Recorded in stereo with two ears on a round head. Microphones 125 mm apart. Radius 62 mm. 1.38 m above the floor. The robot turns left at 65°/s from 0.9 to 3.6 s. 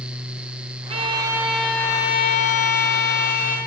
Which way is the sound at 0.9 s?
135° right.